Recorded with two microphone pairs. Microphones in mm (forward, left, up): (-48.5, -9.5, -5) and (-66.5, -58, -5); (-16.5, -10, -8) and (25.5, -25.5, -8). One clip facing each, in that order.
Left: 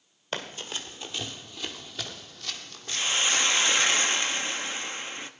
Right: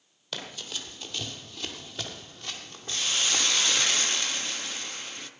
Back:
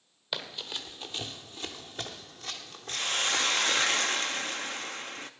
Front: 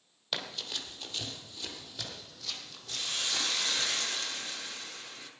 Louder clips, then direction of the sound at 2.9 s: Left 2 dB, back 6 dB; 135° left.